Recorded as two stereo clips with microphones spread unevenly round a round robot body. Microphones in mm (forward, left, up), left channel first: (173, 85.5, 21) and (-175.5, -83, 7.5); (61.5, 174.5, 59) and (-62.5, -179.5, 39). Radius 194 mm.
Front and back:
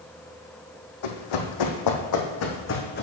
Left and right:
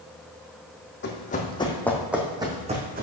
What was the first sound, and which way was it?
Running footsteps, 5° left.